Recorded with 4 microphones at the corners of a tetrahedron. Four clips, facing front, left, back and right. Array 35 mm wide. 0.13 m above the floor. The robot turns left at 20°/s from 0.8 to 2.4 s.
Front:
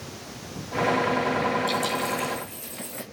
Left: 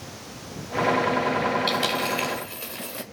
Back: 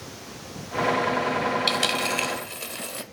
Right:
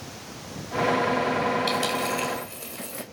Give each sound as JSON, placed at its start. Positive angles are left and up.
{"t": 1.7, "sound": "a dropped coin", "azimuth_deg": 165, "distance_m": 1.6}